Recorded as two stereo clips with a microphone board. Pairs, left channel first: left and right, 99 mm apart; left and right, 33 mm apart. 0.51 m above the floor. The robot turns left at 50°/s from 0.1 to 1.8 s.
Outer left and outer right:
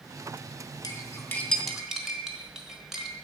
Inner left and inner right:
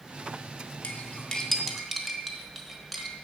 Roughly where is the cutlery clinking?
Left.